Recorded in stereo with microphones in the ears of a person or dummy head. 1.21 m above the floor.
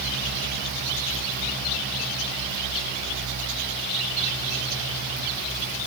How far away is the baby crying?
No baby crying in this recording.